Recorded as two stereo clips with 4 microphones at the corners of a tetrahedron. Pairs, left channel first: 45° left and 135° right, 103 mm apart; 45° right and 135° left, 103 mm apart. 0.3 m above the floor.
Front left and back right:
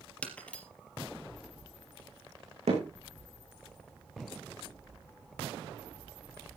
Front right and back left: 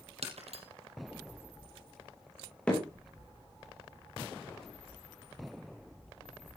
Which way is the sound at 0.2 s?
125° left.